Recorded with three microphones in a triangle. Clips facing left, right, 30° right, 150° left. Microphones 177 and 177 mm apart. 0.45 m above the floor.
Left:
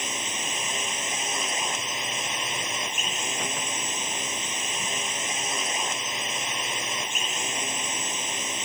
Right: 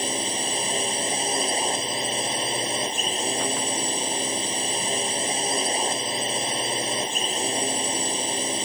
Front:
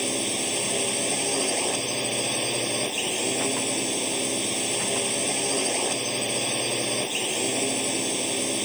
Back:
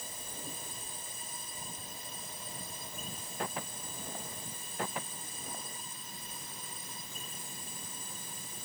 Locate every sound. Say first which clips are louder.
0.0 s a drone: right 7 dB, front 19 dB; 35° right